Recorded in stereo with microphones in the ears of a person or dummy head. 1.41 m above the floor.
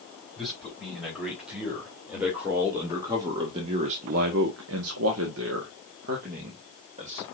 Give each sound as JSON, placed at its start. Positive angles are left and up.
{"t": 0.4, "sound": "a man speaking", "side_deg": 0, "distance_m": 4.5}